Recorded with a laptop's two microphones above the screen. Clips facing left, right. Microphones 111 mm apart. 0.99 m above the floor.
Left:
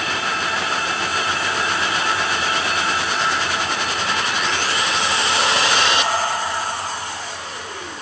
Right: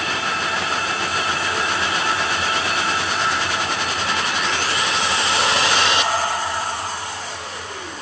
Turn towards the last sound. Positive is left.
No sound to turn to.